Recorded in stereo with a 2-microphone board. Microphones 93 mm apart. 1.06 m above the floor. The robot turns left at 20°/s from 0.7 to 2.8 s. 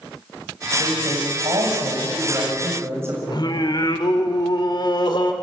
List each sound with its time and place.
0.8 s a man speaking: 110° right, 7 m; by 3.2 s 155° right, 7 m
3.3 s singing: 50° left (ahead or behind), 2 m